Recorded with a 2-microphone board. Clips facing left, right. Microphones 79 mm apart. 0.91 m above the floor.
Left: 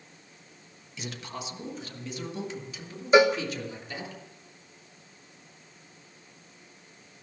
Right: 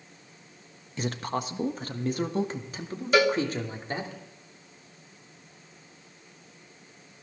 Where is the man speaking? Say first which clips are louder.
Right 8 dB; 45° right (ahead or behind), 1.1 m.